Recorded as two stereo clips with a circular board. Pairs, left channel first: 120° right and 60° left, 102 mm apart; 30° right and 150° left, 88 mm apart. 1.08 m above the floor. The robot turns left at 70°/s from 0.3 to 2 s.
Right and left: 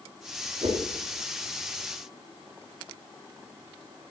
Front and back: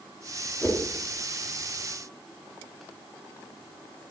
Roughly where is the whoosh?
Ahead left.